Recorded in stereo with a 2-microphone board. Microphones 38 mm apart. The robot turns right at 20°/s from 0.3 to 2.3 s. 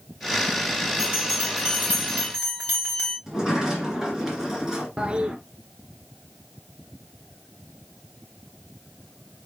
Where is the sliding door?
10° right (ahead or behind), 2 m.